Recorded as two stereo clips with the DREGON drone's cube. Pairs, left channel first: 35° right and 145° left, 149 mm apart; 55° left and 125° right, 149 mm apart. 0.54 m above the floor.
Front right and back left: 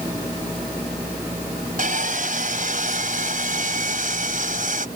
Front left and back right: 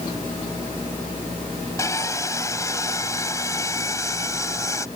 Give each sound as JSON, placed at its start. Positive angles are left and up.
{"t": 1.8, "sound": "sawing", "azimuth_deg": 125}